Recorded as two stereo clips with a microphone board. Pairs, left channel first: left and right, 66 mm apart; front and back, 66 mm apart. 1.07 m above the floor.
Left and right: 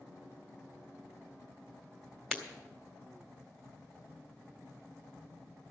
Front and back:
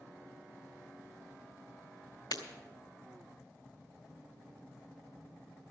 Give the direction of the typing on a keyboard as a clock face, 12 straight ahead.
I don't hear typing on a keyboard.